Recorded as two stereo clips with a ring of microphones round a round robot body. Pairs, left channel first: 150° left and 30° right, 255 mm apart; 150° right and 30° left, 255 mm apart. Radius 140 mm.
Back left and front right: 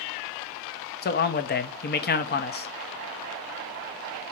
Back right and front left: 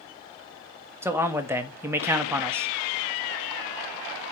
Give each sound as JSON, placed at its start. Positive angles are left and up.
{"t": 1.0, "sound": "a man speaking", "azimuth_deg": 110, "distance_m": 1.1}